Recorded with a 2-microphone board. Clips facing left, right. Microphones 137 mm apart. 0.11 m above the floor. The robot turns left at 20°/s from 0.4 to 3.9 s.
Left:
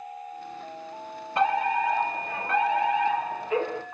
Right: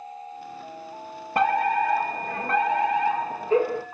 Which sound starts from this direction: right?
A fire alarm, at 1.4 s.